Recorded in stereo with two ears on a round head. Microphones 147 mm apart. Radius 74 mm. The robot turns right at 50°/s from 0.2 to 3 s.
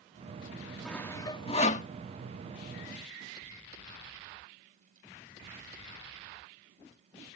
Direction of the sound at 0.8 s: 5° left (ahead or behind).